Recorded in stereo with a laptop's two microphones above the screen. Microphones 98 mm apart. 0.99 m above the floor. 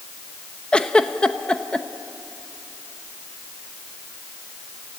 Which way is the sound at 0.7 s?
10° left (ahead or behind).